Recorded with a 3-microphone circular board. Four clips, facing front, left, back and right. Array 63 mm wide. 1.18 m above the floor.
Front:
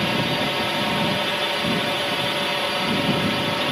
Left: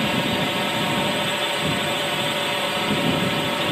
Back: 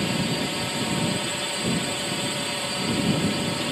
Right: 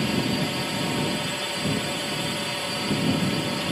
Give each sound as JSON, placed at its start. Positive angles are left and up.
{"t": 0.0, "sound": "a drone", "azimuth_deg": 40}